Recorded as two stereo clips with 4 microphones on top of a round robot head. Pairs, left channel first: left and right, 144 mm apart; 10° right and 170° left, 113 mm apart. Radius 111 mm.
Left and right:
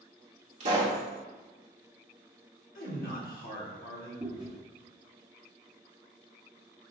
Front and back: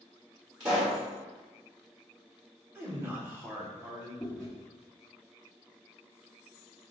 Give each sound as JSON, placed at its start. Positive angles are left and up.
{"t": 0.6, "sound": "a pop", "azimuth_deg": -120, "distance_m": 1.3}
{"t": 2.8, "sound": "a man speaking", "azimuth_deg": 105, "distance_m": 1.2}
{"t": 4.2, "sound": "chewing", "azimuth_deg": -60, "distance_m": 1.0}